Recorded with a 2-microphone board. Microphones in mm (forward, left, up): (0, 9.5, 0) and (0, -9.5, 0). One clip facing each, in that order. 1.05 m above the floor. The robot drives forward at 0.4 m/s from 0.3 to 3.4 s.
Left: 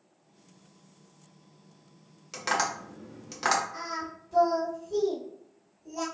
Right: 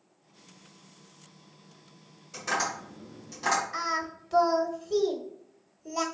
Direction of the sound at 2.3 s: 70° left (ahead or behind).